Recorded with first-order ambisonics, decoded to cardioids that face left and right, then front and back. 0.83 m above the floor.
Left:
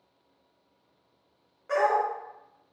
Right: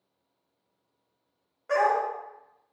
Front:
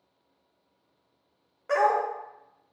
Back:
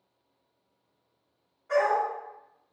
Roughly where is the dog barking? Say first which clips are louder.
Right 1 dB, front 1 dB; ahead.